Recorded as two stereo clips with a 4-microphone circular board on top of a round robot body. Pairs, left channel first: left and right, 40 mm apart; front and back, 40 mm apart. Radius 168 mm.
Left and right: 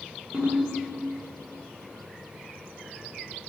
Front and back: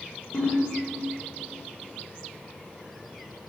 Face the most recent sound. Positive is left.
turn(degrees=-30)